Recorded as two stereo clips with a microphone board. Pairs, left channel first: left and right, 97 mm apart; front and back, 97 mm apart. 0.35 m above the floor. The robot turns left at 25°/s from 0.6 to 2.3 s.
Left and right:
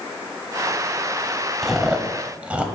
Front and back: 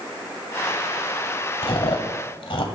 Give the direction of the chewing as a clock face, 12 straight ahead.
12 o'clock.